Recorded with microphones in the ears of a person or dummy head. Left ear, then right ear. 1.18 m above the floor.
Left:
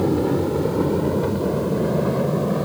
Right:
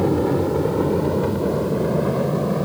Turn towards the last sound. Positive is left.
turn(degrees=0)  # may be behind; listen again after turning